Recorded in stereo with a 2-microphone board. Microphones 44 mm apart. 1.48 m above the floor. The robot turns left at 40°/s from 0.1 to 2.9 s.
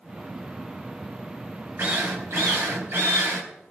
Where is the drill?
70° right, 4.5 m; by 3.4 s 115° right, 4.5 m.